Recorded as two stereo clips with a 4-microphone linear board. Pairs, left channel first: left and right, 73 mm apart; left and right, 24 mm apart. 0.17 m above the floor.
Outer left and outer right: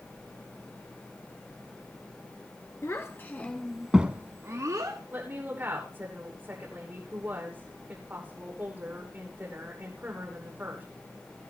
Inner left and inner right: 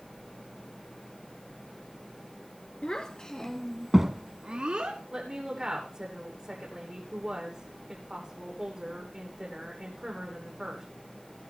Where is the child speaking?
40° left (ahead or behind), 1.6 m; by 5.0 s 60° right (ahead or behind), 1.6 m.